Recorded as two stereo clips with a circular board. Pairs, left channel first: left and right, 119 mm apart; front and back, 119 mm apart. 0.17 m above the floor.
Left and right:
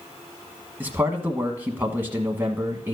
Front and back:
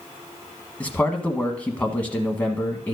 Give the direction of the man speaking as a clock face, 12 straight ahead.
2 o'clock.